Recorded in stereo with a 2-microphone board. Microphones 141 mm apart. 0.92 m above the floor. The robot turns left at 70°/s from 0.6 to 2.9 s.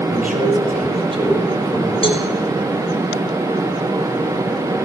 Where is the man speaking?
105° right, 5 m; by 1.9 s 165° left, 5 m.